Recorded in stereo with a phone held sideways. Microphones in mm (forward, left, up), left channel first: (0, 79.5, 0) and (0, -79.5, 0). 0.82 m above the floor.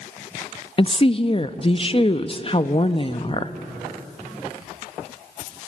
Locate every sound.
0.8 s a woman speaking: 35° left (ahead or behind), 0.8 m